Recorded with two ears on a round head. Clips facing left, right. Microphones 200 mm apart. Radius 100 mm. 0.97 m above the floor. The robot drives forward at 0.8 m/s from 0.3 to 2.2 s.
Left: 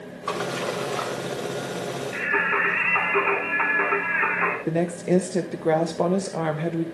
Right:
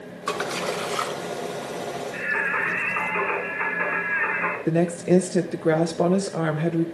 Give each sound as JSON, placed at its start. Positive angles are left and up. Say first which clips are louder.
{"t": 0.3, "sound": "a splash", "louder": "even", "side_deg": -25, "distance_m": 2.5}
{"t": 2.1, "sound": "singing", "louder": "left 3 dB", "side_deg": 80, "distance_m": 3.5}
{"t": 4.7, "sound": "a woman speaking", "louder": "right 3 dB", "side_deg": -5, "distance_m": 0.9}